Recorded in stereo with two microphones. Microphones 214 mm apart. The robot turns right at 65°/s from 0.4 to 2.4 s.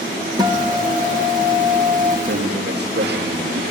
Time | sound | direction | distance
0.4 | a guitar | 160° right | 3 m
2.3 | a man speaking | 60° right (ahead or behind) | 3.5 m